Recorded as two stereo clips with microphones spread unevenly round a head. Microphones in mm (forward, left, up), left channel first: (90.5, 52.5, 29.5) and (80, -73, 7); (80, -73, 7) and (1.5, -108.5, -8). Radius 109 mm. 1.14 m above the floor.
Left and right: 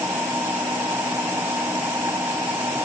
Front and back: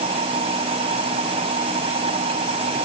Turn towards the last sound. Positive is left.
turn(degrees=180)